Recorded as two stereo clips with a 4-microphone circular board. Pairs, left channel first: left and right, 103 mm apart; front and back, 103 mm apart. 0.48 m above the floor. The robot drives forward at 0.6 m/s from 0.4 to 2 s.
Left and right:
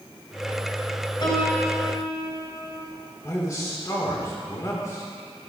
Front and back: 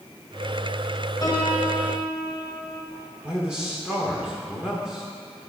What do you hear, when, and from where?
1.2 s a piano: 50° left, 2.5 m; by 2.9 s 60° left, 2 m
3.2 s a man speaking: 105° left, 1.5 m